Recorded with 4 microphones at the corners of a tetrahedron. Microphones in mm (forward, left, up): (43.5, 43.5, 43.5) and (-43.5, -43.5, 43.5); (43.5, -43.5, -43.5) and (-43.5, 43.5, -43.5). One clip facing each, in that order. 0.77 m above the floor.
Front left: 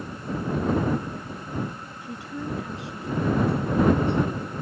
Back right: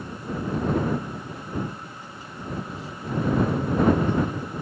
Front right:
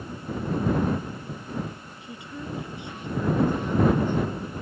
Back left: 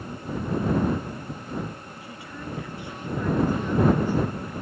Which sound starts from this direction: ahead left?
A woman speaking, at 2.0 s.